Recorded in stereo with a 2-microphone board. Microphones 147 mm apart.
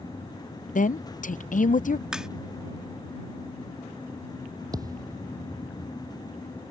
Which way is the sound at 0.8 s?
65° left (ahead or behind).